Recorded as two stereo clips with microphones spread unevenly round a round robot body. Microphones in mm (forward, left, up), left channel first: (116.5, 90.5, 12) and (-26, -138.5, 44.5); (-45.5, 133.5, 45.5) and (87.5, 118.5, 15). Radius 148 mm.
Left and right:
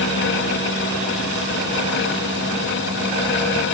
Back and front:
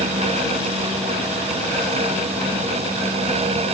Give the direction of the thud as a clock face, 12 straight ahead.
No thud in this recording.